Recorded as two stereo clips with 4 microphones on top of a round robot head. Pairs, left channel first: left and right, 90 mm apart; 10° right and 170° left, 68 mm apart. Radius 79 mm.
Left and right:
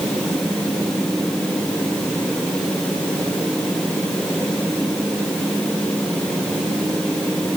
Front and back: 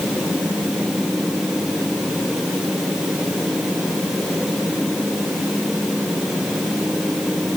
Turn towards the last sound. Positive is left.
No sound to turn to.